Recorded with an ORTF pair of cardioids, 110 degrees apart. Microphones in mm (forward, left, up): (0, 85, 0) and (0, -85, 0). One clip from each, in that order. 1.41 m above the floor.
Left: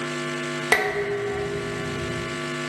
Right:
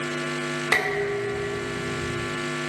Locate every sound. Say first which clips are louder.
0.7 s dishes clattering: left 2 dB; 35° left, 2.5 m